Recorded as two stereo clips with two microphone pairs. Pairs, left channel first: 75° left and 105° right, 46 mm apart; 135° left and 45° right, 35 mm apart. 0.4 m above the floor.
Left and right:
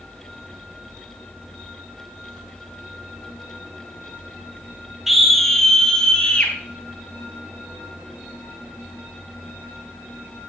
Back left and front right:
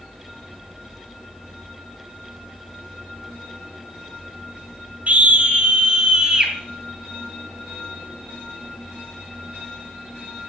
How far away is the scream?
About 2.5 m.